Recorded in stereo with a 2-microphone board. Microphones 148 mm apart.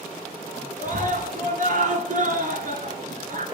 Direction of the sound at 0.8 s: 60° right (ahead or behind).